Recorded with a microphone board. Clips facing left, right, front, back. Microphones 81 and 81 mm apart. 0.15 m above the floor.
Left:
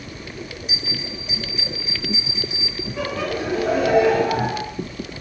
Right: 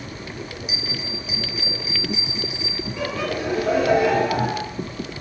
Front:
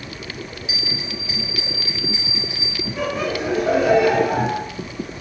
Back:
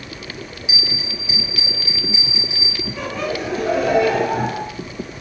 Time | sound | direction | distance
0.7 | a bell | 165° right | 1.1 m
3.0 | laughter | 65° left | 1.2 m